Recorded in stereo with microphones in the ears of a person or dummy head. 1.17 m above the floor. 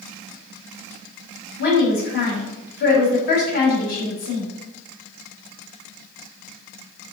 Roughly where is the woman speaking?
Left.